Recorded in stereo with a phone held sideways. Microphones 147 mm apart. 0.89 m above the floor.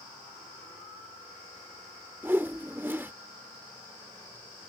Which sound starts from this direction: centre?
A whoosh, at 2.2 s.